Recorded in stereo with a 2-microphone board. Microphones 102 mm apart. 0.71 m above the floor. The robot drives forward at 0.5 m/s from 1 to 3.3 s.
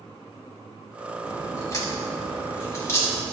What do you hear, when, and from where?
1.2 s a crack: 30° left (ahead or behind), 2.5 m; by 3.2 s 25° left (ahead or behind), 3 m